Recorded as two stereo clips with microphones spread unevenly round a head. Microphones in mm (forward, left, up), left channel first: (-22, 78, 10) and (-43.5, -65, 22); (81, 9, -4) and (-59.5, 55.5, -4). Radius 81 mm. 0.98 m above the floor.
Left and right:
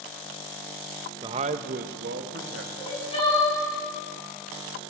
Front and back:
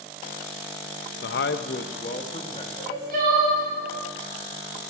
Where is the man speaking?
30° right, 0.6 m; by 2.6 s 80° right, 1.4 m.